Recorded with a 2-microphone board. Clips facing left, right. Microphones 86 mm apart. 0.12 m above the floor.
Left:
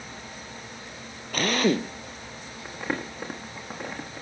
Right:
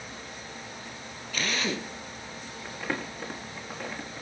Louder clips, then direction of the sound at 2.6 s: Left 2 dB; 15° left (ahead or behind).